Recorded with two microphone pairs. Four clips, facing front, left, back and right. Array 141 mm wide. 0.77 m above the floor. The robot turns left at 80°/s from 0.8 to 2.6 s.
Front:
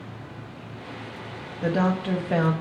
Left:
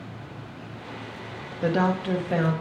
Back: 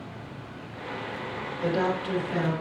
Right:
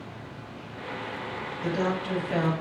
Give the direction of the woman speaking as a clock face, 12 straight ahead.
9 o'clock.